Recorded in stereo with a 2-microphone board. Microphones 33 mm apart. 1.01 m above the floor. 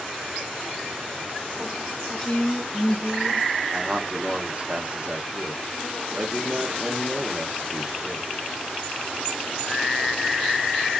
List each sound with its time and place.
2.2 s a woman speaking: 15° left (ahead or behind), 0.6 m; by 3.5 s 70° left (ahead or behind), 1.6 m
3.7 s a man speaking: 30° right (ahead or behind), 0.8 m